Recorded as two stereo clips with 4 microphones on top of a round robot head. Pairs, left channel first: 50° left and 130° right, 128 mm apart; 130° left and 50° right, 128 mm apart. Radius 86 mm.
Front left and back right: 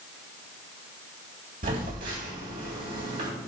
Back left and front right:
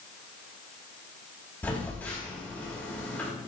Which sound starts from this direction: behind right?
A phone buzzing, at 1.6 s.